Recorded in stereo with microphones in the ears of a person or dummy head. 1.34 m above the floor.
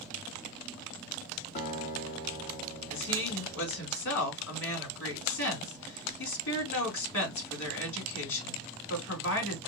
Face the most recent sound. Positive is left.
turn(degrees=75)  # may be behind; listen again after turning